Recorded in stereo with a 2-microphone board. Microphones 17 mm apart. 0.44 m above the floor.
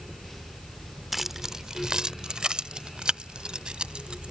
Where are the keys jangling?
10° right (ahead or behind); by 4.3 s 75° right (ahead or behind).